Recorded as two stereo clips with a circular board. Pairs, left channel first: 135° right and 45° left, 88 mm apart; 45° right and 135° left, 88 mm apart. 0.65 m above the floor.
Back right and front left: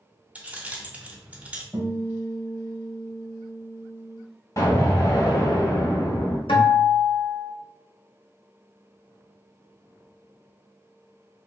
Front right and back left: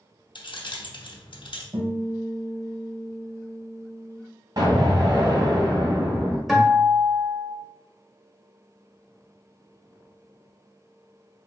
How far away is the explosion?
About 1.5 m.